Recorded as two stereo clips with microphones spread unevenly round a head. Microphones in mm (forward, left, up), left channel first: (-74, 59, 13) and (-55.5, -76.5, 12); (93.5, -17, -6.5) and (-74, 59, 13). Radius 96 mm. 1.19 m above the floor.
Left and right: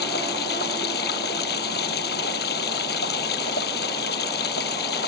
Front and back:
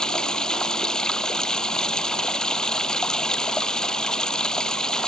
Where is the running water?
60° left.